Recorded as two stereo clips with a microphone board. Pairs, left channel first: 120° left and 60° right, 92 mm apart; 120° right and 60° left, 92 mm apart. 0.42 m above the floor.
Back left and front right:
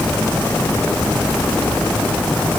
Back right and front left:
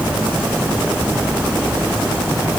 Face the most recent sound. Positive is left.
No sound to turn to.